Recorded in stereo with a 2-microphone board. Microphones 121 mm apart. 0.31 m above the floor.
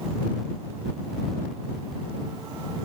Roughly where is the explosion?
No explosion in this recording.